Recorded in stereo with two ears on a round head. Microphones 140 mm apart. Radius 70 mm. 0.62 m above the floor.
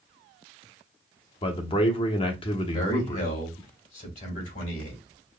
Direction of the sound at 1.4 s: 35° left (ahead or behind).